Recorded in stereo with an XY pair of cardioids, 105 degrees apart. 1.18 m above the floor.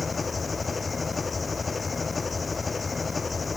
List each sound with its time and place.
0.0 s an engine running: 25° left